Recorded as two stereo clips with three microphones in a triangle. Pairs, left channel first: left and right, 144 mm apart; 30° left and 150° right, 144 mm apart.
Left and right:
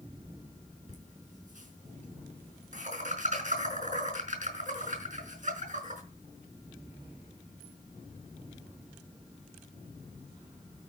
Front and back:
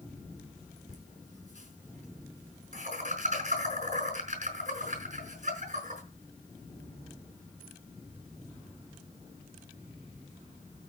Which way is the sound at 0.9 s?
120° right.